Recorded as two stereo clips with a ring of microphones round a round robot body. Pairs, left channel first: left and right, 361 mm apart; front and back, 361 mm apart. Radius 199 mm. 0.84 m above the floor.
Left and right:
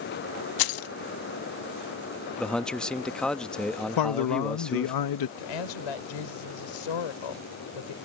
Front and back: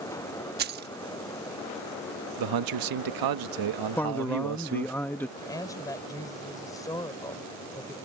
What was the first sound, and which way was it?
Keys jangling, 115° left.